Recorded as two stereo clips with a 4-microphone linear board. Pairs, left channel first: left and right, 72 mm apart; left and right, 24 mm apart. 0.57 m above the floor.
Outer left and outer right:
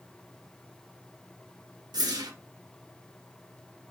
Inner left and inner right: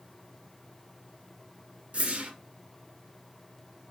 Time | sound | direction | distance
1.9 | a whoosh | 60° right (ahead or behind) | 0.6 m